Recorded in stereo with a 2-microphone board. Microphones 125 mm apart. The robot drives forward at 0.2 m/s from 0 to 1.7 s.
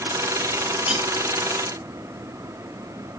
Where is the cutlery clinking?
5° right (ahead or behind), 4 m.